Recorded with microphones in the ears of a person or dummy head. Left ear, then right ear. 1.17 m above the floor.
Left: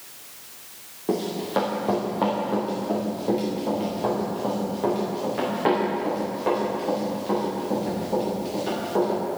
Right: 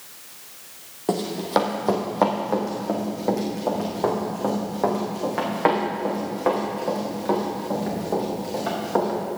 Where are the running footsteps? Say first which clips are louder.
Right 3 dB; 30° right (ahead or behind), 2.5 m; by 9.2 s 40° right (ahead or behind), 7.5 m.